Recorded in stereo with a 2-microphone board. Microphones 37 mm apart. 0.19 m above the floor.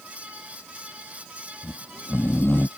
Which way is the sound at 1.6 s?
80° left.